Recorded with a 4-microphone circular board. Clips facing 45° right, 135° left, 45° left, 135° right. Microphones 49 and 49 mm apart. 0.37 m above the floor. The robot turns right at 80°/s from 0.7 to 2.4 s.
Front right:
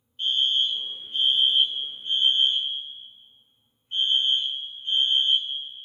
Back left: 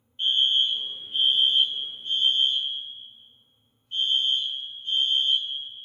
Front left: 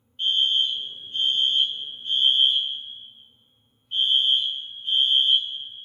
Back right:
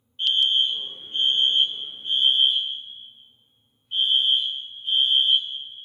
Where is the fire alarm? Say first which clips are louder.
Back left 1 dB, back right 1 dB; 175° left, 2 m; by 5.6 s 50° right, 2 m.